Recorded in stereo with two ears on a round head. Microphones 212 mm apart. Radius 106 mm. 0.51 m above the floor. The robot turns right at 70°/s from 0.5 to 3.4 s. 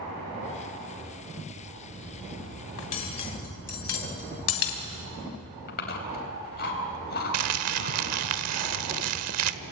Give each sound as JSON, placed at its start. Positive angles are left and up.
{"t": 2.8, "sound": "cutlery clinking", "side_deg": 60, "distance_m": 2.5}
{"t": 5.7, "sound": "chewing", "side_deg": 45, "distance_m": 3.5}
{"t": 7.3, "sound": "crumpling", "side_deg": -75, "distance_m": 1.0}